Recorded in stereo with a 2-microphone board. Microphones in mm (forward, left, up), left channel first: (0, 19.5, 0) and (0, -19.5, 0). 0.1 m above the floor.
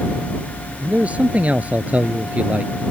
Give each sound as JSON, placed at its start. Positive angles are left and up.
{"t": 0.8, "sound": "a man speaking", "side_deg": -40}